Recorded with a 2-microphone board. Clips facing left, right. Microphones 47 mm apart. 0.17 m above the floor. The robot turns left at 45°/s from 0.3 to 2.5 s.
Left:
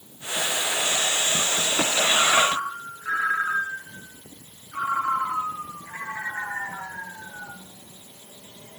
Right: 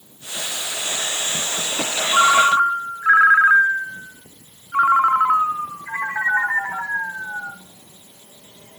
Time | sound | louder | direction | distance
2.1 | a ringtone | right 9 dB | 65° right (ahead or behind) | 1.4 m